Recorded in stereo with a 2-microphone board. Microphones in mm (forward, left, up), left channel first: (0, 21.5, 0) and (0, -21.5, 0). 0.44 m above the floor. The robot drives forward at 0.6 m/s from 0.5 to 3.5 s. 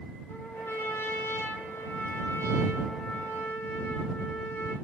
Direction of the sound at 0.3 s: 80° left.